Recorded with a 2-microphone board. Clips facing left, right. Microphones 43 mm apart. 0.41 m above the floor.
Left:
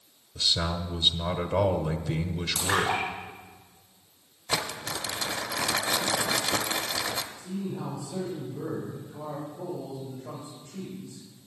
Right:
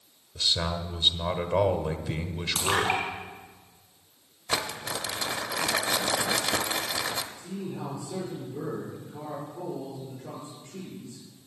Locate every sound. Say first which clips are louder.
0.3 s a man speaking: even; 15° right (ahead or behind), 1.2 m
2.5 s a splash: right 1 dB; 50° right (ahead or behind), 4.5 m
4.5 s crumpling: even; 10° right (ahead or behind), 0.8 m
7.4 s a man speaking: left 1 dB; 75° right (ahead or behind), 7 m